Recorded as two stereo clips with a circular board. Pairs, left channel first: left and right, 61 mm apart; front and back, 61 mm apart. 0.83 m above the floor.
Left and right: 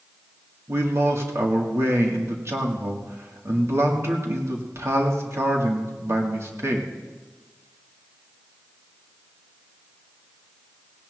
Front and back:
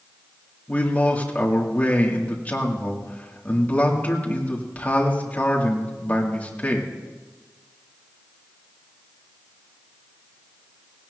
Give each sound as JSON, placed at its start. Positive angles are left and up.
{"t": 0.7, "sound": "a man speaking", "azimuth_deg": -60, "distance_m": 2.0}